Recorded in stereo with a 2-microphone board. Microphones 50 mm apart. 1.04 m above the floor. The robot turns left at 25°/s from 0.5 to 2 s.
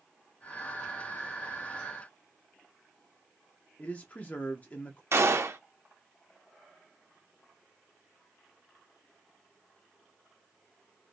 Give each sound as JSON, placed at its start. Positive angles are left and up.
{"t": 3.8, "sound": "a man speaking", "side_deg": 30, "distance_m": 0.7}
{"t": 5.1, "sound": "a gunshot", "side_deg": -55, "distance_m": 0.6}